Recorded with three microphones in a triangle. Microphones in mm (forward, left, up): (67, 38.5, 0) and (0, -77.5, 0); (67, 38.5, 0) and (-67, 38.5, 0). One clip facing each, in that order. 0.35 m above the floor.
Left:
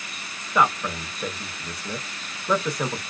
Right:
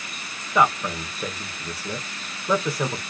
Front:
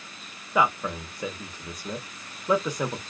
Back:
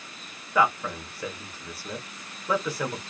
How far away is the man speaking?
About 0.9 m.